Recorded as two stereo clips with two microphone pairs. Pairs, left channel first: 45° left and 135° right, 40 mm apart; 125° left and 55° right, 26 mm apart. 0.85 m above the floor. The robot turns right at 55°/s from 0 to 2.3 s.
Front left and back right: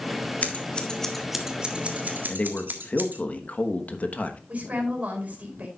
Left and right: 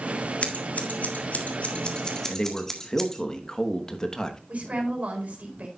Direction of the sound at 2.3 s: 75° left.